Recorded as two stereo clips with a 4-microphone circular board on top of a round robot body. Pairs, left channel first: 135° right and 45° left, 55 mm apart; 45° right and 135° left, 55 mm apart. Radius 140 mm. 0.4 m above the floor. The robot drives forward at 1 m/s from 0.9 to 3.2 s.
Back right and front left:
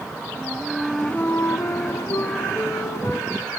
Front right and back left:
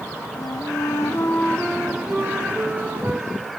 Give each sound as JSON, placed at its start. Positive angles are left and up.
{"t": 0.3, "sound": "a flute", "azimuth_deg": -50, "distance_m": 0.7}